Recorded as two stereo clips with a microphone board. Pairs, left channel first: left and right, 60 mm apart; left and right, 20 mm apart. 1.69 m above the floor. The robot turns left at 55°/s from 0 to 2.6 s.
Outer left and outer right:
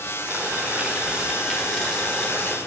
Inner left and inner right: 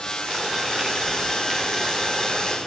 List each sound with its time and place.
0.3 s boiling: 30° right (ahead or behind), 1.0 m; by 2.6 s 20° left (ahead or behind), 1.0 m